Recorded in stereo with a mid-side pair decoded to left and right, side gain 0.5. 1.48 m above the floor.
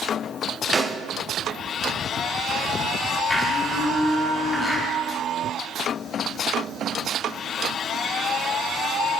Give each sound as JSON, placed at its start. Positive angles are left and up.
{"t": 0.7, "sound": "a snare drum", "azimuth_deg": -20, "distance_m": 1.0}
{"t": 3.3, "sound": "a blender", "azimuth_deg": 25, "distance_m": 4.5}